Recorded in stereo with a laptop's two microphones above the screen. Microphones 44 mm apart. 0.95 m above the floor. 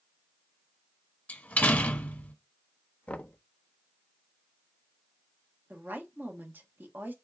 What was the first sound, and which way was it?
A door slam, 35° left (ahead or behind).